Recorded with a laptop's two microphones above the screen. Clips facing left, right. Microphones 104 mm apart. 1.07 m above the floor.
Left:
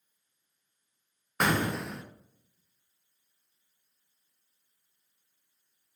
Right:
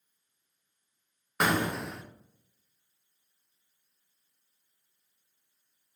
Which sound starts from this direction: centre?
An explosion, at 1.4 s.